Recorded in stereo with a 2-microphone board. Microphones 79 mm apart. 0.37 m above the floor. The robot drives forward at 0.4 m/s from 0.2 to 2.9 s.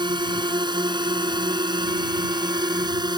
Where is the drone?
75° right (ahead or behind); by 3.2 s 65° right (ahead or behind).